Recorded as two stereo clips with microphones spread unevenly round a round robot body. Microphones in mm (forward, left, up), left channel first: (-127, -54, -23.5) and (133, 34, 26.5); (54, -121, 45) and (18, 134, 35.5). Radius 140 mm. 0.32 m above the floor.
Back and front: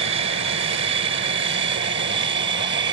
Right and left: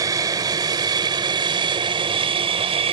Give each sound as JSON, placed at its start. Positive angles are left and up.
{"t": 0.0, "sound": "an aircraft", "azimuth_deg": 35}